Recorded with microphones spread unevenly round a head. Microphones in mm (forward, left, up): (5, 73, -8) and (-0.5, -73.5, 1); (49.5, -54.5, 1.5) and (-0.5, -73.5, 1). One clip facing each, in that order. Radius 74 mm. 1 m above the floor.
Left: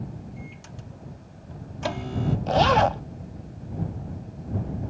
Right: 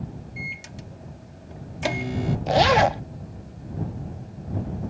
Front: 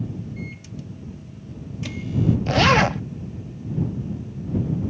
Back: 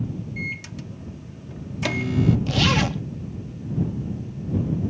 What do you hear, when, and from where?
0.4 s a microwave: 160° right
2.5 s a zipper: 20° right